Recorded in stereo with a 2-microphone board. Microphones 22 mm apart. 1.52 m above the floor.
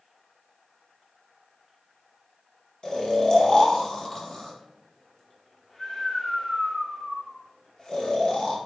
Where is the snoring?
40° left (ahead or behind), 0.9 m.